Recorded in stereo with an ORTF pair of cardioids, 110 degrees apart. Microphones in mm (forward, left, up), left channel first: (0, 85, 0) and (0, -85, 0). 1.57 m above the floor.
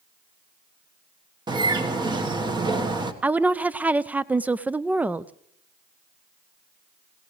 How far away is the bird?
About 1.4 m.